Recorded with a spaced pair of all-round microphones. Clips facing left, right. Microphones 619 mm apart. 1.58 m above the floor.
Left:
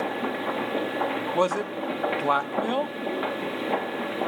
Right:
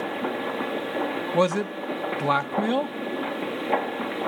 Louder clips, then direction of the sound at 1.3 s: Right 3 dB; 50° right (ahead or behind).